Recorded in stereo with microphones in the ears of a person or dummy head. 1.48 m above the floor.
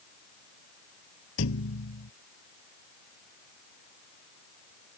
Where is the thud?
75° left (ahead or behind).